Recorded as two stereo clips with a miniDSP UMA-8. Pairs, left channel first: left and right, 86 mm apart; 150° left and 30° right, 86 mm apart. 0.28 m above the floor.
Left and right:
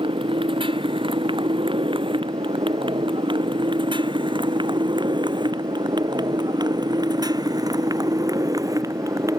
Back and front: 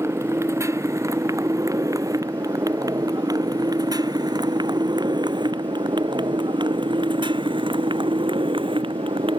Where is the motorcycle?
90° right; by 9.4 s 40° right.